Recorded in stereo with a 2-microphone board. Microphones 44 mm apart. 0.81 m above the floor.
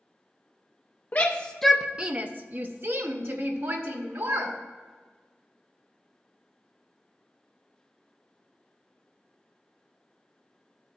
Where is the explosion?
No explosion in this recording.